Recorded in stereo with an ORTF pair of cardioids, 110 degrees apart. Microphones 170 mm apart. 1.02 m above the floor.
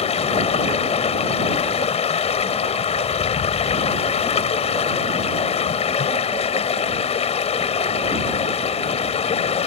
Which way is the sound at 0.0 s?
40° left.